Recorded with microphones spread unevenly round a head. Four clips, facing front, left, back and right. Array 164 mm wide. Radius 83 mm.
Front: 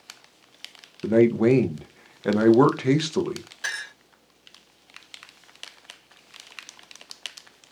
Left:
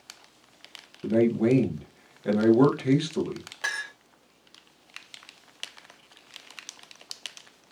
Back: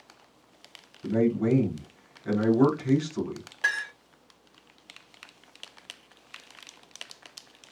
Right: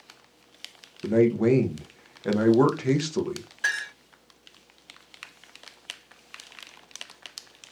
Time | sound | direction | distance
1.0 | a man speaking | 5° right | 0.6 m
3.6 | a clink | 125° left | 1.7 m